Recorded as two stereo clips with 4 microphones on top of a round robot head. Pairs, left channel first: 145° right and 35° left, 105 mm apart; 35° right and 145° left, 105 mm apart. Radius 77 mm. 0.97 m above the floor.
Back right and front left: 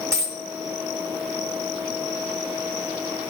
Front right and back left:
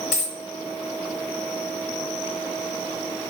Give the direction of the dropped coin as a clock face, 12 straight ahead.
1 o'clock.